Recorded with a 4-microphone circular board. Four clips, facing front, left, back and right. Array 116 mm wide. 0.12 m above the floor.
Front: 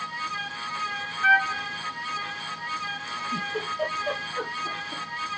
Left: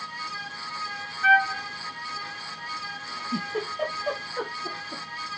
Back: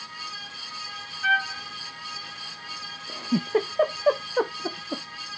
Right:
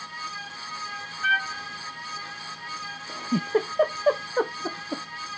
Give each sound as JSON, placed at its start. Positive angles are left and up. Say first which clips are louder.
{"t": 1.2, "sound": "a trumpet", "louder": "left 6 dB, front 3 dB", "azimuth_deg": 45, "distance_m": 0.7}
{"t": 3.1, "sound": "a giggle", "louder": "right 7 dB, back 8 dB", "azimuth_deg": -140, "distance_m": 0.8}